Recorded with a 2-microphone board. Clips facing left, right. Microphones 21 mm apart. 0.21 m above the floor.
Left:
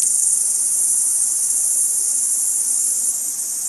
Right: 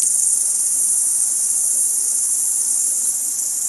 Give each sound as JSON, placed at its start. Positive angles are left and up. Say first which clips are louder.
{"t": 0.0, "sound": "an insect", "louder": "even", "side_deg": -65}